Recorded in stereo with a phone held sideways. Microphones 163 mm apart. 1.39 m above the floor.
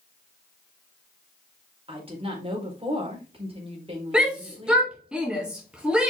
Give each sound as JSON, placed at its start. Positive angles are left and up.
{"t": 1.9, "sound": "a woman speaking", "side_deg": -35, "distance_m": 5.0}
{"t": 4.1, "sound": "a shout", "side_deg": -5, "distance_m": 2.0}